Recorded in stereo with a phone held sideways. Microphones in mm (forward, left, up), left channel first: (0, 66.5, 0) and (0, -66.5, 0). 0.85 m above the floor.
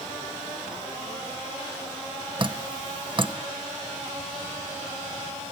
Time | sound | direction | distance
2.4 | dripping | 35° right (ahead or behind) | 0.7 m